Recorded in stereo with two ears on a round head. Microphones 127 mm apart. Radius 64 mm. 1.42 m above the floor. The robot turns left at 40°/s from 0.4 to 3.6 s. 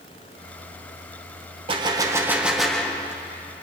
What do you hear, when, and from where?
1.7 s a gunshot: 140° right, 0.8 m; by 3.2 s 155° left, 0.8 m